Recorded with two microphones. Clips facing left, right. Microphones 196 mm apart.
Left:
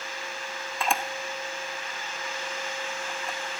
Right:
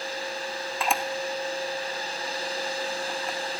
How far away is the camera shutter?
About 0.8 m.